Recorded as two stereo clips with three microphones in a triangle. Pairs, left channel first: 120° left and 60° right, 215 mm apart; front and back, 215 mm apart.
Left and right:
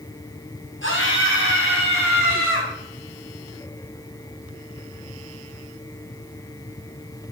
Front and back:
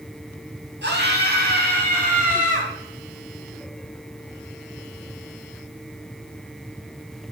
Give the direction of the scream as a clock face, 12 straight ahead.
7 o'clock.